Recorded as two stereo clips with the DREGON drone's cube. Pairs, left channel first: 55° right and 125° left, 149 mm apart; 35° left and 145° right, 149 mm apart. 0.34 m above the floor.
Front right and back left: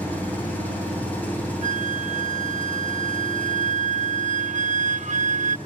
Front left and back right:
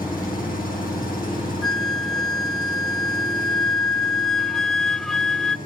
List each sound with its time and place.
0.0 s an engine running: 25° left, 7.5 m
1.6 s a flute: 120° left, 0.6 m